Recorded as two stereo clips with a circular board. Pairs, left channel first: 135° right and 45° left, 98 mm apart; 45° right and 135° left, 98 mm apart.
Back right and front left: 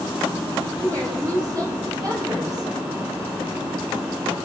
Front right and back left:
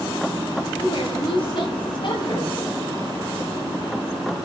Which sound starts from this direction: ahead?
A woman speaking, at 0.8 s.